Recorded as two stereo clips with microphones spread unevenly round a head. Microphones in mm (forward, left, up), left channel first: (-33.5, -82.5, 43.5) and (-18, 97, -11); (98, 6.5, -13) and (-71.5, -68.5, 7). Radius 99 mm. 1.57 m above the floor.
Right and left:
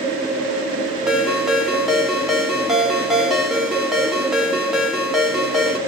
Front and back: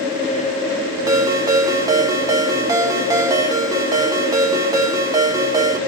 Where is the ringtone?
145° right, 0.6 m.